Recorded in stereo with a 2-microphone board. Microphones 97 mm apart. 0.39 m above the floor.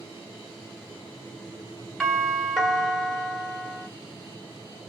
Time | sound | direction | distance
2.0 | a doorbell | 5° right (ahead or behind) | 1.7 m